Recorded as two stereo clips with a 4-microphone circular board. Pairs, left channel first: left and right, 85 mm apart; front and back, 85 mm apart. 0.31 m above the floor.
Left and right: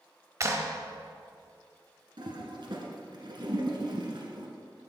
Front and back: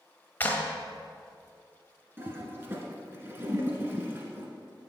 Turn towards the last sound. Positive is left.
turn(degrees=-115)